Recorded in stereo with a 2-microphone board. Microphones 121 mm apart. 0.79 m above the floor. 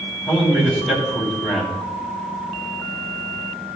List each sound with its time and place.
0.3 s a man speaking: 5° left (ahead or behind), 4.5 m